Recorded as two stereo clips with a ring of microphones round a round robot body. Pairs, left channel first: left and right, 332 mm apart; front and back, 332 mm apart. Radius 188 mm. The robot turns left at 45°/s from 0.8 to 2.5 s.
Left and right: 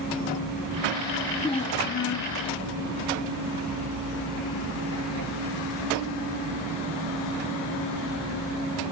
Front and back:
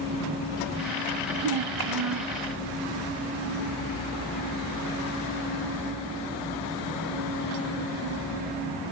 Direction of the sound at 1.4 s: 170° left.